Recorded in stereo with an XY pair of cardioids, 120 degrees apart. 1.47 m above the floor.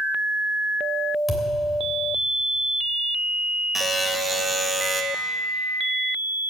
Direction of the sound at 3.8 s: 5° right.